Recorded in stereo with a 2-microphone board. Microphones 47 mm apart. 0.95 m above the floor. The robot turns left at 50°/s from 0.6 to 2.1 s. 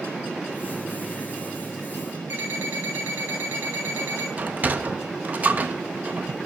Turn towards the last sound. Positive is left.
turn(degrees=-35)  # may be behind; listen again after turning